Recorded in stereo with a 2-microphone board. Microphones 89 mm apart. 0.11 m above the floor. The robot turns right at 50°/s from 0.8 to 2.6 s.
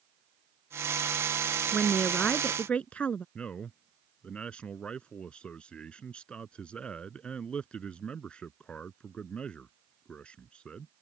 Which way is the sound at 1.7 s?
Centre (ahead or behind).